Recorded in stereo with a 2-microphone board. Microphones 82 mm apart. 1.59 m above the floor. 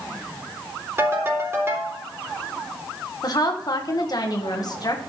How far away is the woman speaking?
About 1.7 m.